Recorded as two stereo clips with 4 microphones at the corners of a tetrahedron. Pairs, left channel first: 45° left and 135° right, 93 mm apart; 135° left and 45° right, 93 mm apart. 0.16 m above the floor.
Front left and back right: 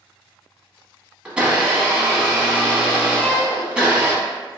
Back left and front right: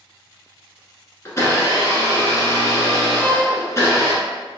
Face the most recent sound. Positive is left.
turn(degrees=115)